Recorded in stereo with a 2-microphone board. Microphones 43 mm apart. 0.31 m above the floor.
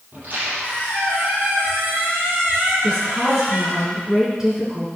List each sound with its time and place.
0.1 s a squeak: 40° right (ahead or behind), 6 m
2.8 s a woman speaking: 10° right (ahead or behind), 5 m